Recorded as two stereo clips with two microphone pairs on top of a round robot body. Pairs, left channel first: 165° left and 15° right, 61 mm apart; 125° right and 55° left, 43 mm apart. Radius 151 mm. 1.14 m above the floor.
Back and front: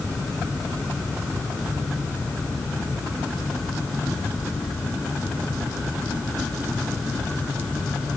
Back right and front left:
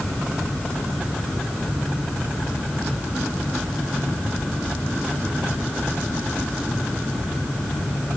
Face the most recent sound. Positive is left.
No sound to turn to.